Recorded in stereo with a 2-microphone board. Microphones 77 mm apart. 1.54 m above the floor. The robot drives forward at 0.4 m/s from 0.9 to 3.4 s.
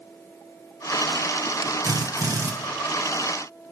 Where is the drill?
50° right (ahead or behind), 1.1 m; by 2.5 s 45° right (ahead or behind), 1.3 m.